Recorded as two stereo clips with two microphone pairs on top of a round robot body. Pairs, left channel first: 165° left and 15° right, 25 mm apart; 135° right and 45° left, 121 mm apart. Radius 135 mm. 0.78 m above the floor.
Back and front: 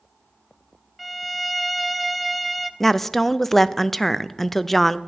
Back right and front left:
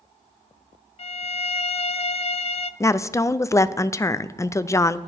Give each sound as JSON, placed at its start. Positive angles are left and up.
{"t": 1.0, "sound": "a violin", "azimuth_deg": -120, "distance_m": 0.5}
{"t": 2.8, "sound": "a woman speaking", "azimuth_deg": -160, "distance_m": 0.5}